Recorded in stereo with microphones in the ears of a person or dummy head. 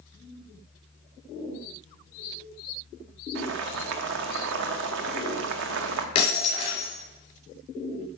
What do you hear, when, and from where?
3.4 s boiling: 70° right (ahead or behind), 0.8 m
6.2 s breaking glass: 30° left (ahead or behind), 3 m